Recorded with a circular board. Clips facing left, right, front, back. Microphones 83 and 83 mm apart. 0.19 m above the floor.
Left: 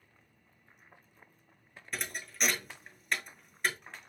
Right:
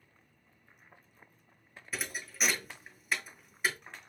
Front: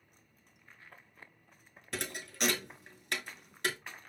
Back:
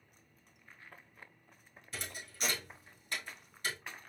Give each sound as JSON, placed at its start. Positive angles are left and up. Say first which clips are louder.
{"t": 1.9, "sound": "a thud", "louder": "even, front 6 dB", "azimuth_deg": -5, "distance_m": 0.5}